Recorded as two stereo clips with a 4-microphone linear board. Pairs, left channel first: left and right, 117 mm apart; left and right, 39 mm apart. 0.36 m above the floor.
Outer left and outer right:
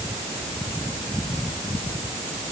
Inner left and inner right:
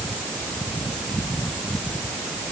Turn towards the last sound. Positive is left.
No sound to turn to.